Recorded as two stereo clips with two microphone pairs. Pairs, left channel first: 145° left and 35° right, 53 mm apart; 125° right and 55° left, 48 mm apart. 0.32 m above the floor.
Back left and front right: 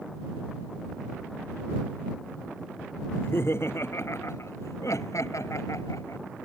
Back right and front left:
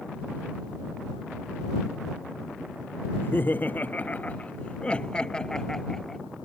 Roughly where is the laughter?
Behind.